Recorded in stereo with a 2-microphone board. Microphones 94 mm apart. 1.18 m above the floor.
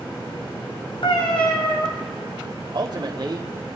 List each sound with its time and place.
1.0 s a cat meowing: 70° left (ahead or behind), 2.5 m
2.7 s a man speaking: 45° right (ahead or behind), 1.5 m